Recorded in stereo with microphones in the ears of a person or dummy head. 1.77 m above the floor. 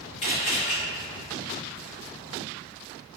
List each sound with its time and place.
0.2 s a camera shutter: 40° left (ahead or behind), 1.2 m